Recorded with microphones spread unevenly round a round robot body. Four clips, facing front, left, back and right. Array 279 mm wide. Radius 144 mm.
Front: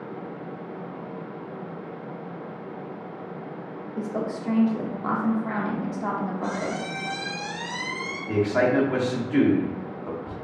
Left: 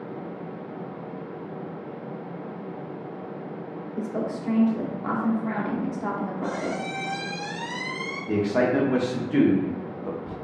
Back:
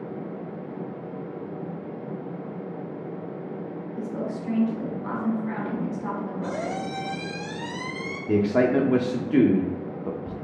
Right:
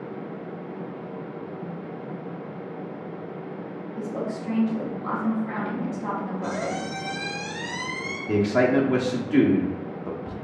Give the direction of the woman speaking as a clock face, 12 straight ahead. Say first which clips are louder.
Left 1 dB, front 3 dB; 11 o'clock.